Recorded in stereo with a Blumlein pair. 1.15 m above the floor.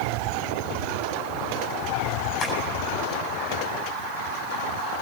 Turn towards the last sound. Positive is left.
turn(degrees=30)